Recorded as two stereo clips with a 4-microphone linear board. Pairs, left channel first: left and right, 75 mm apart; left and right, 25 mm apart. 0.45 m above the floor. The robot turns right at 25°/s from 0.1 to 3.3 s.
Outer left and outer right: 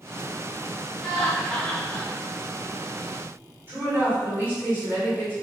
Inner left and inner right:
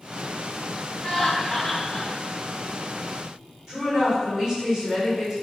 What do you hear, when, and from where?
1.0 s laughter: centre (ahead or behind), 1.1 m; by 2.1 s 15° left (ahead or behind), 1.1 m
3.7 s a woman speaking: 30° right (ahead or behind), 1.4 m